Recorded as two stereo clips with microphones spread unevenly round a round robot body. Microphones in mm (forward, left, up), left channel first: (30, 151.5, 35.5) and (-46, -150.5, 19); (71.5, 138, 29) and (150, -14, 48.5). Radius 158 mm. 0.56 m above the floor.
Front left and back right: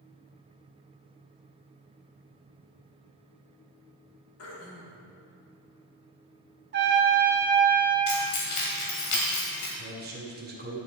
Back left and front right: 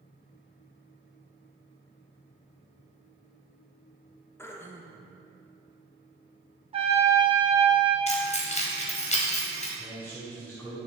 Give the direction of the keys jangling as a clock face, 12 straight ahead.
10 o'clock.